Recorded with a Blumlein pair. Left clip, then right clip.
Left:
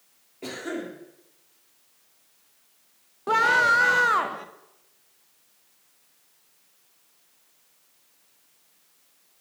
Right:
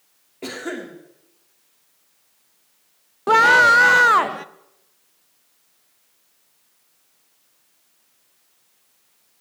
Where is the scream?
20° right, 0.7 m.